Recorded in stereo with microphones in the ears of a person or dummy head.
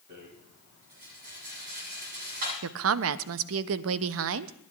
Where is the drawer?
No drawer in this recording.